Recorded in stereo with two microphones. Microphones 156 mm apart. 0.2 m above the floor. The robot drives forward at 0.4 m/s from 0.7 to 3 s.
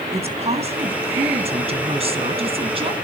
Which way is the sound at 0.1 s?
40° right (ahead or behind).